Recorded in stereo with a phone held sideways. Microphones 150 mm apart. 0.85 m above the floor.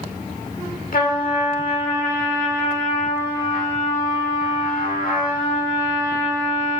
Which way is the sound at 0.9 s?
70° left (ahead or behind).